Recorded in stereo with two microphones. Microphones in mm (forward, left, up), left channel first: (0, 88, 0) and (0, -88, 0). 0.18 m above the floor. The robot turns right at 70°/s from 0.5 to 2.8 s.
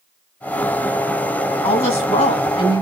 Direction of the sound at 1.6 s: 65° left.